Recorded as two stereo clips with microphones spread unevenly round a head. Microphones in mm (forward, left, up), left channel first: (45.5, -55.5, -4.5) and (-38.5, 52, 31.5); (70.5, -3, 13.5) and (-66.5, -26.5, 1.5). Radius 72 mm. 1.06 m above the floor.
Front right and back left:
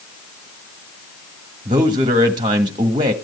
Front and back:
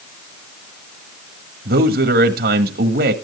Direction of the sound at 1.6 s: 165° right.